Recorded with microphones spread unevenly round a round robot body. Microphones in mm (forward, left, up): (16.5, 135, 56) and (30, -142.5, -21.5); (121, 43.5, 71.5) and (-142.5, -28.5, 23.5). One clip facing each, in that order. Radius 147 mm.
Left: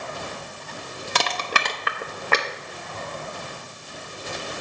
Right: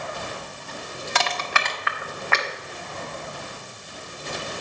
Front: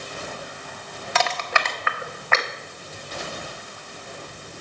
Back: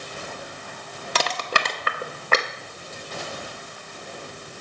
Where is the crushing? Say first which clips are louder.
Left 1 dB, front 1 dB; 150° left, 0.6 m.